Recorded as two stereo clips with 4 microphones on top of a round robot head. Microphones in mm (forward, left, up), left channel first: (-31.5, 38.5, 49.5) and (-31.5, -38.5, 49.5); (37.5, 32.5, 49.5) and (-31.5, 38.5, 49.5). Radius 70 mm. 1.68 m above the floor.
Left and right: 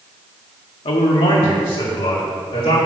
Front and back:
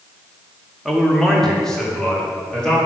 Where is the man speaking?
85° left, 1.2 m; by 2.8 s 75° left, 3 m.